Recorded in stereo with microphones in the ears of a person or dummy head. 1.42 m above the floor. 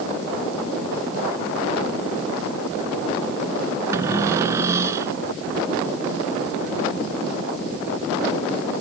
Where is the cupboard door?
15° right (ahead or behind).